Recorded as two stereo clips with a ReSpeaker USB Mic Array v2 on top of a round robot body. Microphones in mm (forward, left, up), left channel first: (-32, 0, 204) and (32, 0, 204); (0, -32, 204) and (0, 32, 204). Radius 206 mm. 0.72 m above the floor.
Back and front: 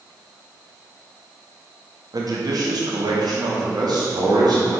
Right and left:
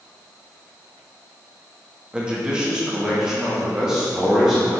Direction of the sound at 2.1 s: 15° left.